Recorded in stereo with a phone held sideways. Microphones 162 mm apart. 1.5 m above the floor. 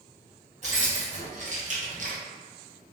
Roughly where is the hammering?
No hammering in this recording.